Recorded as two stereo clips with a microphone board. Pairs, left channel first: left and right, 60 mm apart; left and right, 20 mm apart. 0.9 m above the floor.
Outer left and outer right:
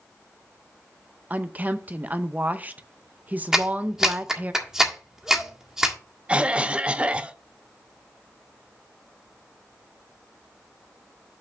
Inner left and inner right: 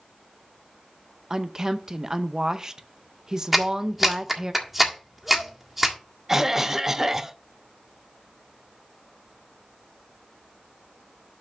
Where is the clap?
10° right (ahead or behind), 1.6 m.